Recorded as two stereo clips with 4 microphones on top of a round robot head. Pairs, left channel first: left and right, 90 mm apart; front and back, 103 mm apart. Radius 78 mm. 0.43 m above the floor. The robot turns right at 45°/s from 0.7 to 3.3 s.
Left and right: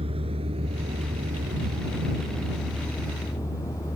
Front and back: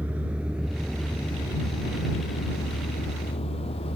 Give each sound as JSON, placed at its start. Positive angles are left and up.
{"t": 0.0, "sound": "a vehicle", "azimuth_deg": -100}